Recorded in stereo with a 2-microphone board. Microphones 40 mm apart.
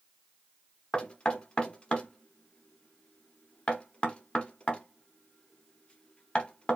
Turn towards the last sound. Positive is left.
turn(degrees=30)  # may be behind; listen again after turning